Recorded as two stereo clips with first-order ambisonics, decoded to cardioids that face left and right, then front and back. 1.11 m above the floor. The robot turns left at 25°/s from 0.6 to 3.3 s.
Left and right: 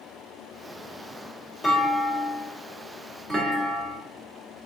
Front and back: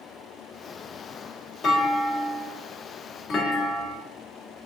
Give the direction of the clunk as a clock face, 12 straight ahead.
12 o'clock.